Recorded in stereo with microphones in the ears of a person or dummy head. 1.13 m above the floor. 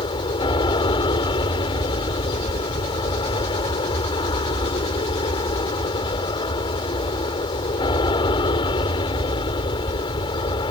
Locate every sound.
0.0 s an aircraft: 25° left (ahead or behind)